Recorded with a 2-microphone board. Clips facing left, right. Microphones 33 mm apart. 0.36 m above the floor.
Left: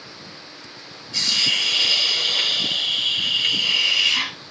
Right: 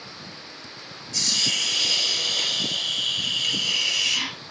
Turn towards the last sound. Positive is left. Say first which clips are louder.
# left 4 dB
turn(degrees=35)  # may be behind; listen again after turning